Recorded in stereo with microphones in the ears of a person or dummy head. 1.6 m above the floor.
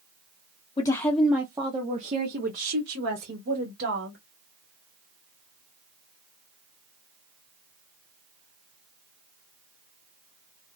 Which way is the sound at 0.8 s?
20° left (ahead or behind).